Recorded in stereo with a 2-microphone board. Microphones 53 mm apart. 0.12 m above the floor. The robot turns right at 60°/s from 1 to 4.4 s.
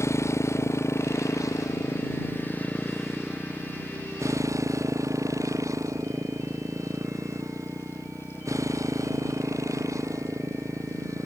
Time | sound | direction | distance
0.0 | a motorcycle | 60° left (ahead or behind) | ?